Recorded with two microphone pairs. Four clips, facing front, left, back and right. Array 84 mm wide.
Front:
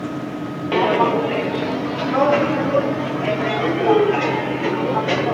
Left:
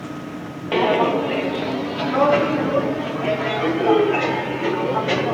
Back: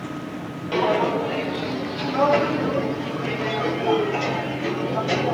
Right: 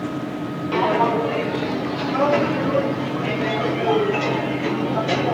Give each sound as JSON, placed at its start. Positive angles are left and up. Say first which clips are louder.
{"t": 0.7, "sound": "footsteps", "louder": "left 1 dB, front 4 dB", "azimuth_deg": 40, "distance_m": 1.6}